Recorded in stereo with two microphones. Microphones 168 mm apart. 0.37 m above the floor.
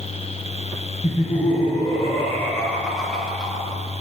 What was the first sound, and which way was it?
Laughter, 35° left (ahead or behind).